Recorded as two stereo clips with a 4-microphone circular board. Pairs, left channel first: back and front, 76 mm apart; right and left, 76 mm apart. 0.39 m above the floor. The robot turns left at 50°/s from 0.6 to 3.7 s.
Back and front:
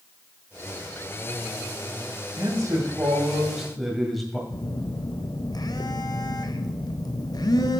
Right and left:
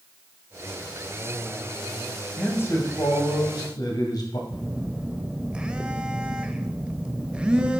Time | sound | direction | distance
2.4 | a man speaking | 25° right | 1.9 m
4.5 | a phone buzzing | 165° left | 0.6 m